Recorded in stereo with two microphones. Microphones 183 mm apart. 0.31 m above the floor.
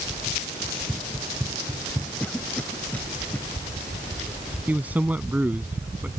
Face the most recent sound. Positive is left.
turn(degrees=-10)  # may be behind; listen again after turning